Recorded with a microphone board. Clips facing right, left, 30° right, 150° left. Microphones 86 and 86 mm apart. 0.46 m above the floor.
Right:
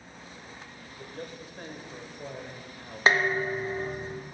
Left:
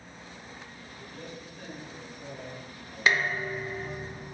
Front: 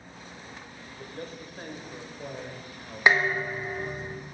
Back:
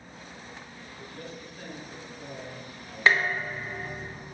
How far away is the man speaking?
About 1.4 m.